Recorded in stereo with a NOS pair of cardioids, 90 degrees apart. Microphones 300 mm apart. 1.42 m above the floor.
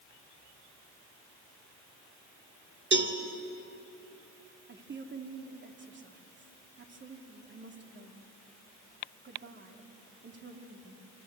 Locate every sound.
2.9 s a cowbell: 40° right, 3 m
4.7 s a woman speaking: 35° right, 3 m